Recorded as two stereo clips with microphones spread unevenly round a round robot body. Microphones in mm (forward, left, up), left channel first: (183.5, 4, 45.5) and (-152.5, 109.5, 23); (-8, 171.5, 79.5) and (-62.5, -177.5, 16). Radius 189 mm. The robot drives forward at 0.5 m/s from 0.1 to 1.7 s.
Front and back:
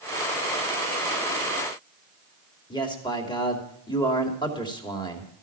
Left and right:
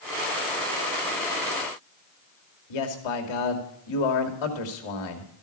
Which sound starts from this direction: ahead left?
A man speaking, at 2.7 s.